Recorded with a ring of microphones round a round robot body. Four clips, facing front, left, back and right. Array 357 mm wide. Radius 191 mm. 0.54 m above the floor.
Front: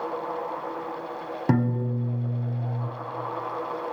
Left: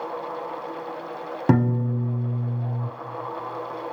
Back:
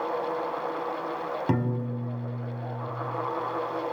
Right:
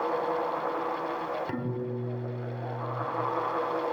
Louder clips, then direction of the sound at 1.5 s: Left 10 dB, front 6 dB; 70° left.